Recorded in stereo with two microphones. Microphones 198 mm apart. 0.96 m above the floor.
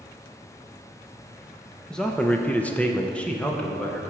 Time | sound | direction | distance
1.9 | a man speaking | 5° left (ahead or behind) | 0.7 m